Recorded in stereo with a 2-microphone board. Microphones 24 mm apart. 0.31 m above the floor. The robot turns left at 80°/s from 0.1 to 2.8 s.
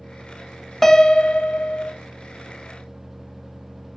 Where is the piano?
170° left, 0.6 m; by 1.9 s 80° left, 0.6 m.